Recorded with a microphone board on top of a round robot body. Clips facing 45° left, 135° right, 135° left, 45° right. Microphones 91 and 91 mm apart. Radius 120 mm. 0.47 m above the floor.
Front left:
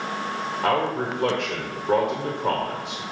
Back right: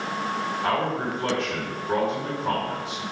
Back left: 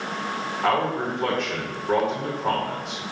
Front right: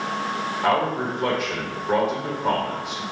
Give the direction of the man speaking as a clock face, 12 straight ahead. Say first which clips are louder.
Front left 4 dB, front right 1 dB; 10 o'clock.